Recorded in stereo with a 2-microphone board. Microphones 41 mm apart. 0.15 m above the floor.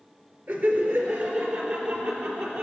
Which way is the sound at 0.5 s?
55° right (ahead or behind).